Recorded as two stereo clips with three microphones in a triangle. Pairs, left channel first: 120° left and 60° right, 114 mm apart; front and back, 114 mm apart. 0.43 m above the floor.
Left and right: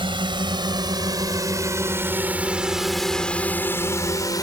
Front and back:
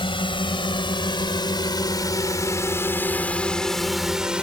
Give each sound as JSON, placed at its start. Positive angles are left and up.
{"t": 0.0, "sound": "a drone", "azimuth_deg": -30}